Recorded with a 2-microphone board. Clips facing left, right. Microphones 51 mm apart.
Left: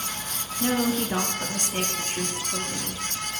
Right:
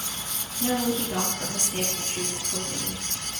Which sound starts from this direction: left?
A woman speaking, at 0.6 s.